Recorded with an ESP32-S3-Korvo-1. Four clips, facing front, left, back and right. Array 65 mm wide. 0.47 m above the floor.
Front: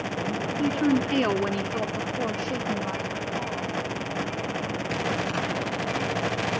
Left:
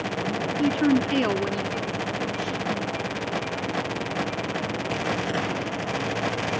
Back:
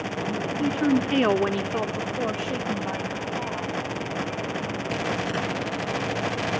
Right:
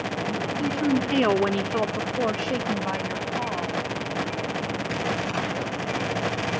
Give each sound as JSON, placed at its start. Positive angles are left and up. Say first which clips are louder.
{"t": 0.6, "sound": "a woman speaking", "louder": "left 3 dB, back 1 dB", "azimuth_deg": 90, "distance_m": 1.1}